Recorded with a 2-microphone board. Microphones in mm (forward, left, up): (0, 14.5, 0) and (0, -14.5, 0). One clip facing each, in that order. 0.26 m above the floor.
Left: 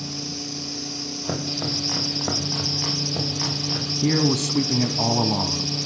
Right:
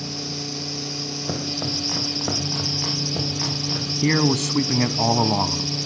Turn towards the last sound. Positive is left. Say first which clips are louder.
# right 1 dB
turn(degrees=-55)  # may be behind; listen again after turning